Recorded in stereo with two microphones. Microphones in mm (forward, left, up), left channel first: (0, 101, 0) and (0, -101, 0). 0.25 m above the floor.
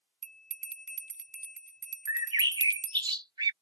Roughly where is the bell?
Right.